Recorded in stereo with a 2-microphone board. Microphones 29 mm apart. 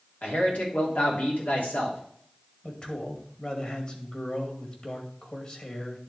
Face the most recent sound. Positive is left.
turn(degrees=40)  # may be behind; listen again after turning